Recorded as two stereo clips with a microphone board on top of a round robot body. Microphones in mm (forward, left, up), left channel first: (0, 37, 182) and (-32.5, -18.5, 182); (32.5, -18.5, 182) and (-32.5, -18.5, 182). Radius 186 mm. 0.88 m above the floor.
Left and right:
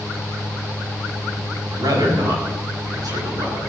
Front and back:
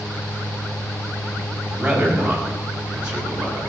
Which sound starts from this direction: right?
A man speaking, at 1.7 s.